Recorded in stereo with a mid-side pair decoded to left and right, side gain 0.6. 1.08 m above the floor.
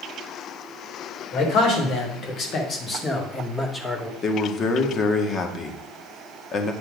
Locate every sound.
1.3 s a man speaking: 70° left, 3 m; by 4.1 s 5° left, 2 m
4.2 s a man speaking: 45° left, 1.6 m